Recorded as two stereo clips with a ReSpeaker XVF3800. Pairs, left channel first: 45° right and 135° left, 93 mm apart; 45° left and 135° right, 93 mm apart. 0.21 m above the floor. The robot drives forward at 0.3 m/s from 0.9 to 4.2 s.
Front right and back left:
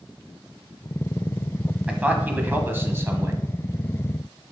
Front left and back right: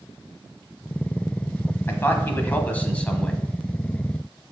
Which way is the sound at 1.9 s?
70° left.